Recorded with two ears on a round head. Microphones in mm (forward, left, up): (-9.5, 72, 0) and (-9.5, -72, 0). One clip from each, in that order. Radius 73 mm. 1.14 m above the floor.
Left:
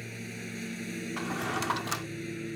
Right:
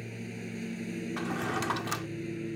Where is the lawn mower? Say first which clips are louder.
Left 1 dB; 35° left (ahead or behind).